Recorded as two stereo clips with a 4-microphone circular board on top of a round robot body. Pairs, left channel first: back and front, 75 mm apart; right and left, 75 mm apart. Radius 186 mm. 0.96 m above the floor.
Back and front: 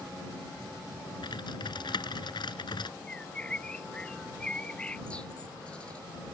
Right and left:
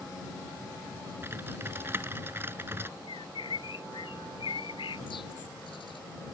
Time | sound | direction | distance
1.2 | typing on a keyboard | 150° left | ?
3.1 | a bird | 105° right | ?